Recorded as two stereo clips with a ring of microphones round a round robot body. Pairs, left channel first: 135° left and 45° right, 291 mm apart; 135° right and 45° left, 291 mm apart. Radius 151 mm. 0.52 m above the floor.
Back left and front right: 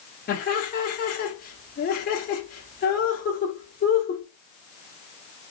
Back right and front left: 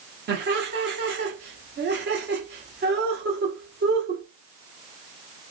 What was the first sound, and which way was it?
Laughter, 85° left.